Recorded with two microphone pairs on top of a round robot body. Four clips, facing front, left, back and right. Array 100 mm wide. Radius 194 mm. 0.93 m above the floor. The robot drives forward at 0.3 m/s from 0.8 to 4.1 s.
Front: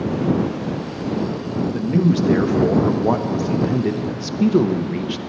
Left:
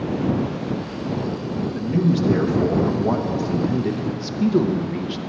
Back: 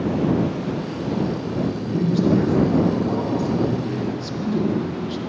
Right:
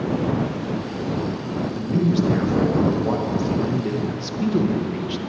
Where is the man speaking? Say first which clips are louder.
Even, front 7 dB; 5° left, 1.6 m; by 5.2 s 10° left, 0.9 m.